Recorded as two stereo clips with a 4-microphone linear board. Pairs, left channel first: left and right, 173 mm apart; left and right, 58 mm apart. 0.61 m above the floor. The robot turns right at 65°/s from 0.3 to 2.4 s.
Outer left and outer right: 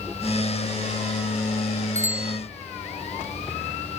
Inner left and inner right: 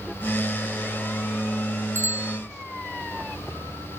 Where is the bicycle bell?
40° left (ahead or behind); by 2.4 s 70° left (ahead or behind).